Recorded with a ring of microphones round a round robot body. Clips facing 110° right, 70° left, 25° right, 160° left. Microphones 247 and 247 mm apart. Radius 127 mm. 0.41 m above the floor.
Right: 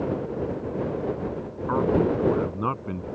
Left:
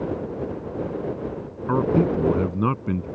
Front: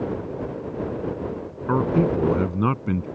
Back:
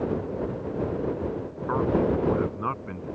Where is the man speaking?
20° left; by 3.1 s 10° left.